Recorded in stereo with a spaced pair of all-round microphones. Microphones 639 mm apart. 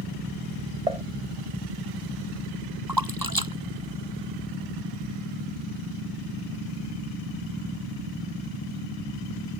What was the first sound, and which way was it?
Dishes clattering, 70° right (ahead or behind).